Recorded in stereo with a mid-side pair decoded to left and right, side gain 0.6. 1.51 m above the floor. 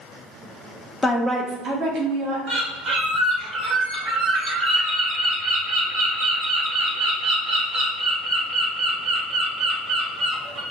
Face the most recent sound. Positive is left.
turn(degrees=-45)